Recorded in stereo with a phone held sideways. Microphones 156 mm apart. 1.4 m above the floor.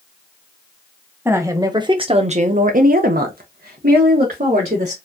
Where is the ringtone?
I don't hear a ringtone.